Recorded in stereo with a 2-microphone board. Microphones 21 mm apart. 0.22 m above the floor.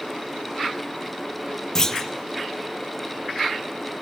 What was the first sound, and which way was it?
A clunk, 20° left (ahead or behind).